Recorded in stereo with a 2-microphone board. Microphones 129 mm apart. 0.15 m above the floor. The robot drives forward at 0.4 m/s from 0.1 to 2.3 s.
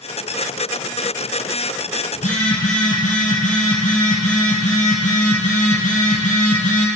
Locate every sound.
2.1 s a phone buzzing: 75° left (ahead or behind), 2.0 m